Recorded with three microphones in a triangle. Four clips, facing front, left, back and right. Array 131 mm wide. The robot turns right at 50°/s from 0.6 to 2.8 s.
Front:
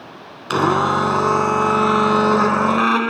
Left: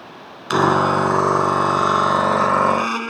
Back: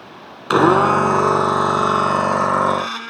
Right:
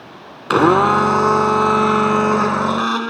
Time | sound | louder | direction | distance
0.5 | a blender | right 3 dB, back 4 dB | 125° right | ?